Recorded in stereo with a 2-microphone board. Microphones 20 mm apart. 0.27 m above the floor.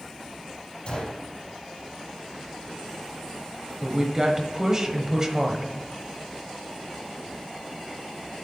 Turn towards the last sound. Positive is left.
turn(degrees=-25)  # may be behind; listen again after turning